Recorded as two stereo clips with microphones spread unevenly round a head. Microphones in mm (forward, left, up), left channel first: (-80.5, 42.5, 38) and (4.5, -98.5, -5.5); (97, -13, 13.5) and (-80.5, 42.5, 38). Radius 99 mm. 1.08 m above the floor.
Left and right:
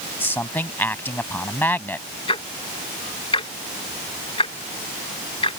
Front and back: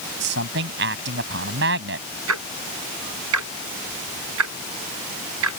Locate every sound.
0.2 s a man speaking: 160° right
2.3 s ticking: 175° left